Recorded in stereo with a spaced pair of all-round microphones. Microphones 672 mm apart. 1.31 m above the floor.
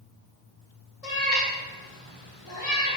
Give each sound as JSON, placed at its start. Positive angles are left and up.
{"t": 1.0, "sound": "a cat meowing", "side_deg": 60, "distance_m": 1.5}